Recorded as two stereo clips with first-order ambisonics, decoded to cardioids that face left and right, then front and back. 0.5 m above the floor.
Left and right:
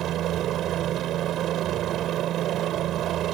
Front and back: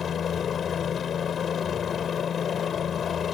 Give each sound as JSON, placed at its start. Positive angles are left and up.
{"t": 0.0, "sound": "a helicopter", "azimuth_deg": -55}